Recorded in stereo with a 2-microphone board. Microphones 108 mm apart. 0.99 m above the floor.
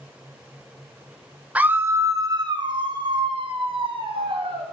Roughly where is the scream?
Centre.